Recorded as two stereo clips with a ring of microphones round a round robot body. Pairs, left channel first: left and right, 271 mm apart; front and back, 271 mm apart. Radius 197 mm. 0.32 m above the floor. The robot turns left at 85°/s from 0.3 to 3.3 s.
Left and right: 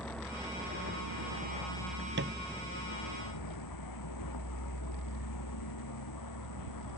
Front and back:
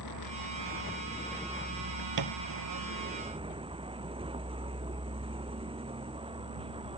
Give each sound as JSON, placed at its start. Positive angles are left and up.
{"t": 0.0, "sound": "a vehicle", "azimuth_deg": 5}
{"t": 2.2, "sound": "a thud", "azimuth_deg": -150}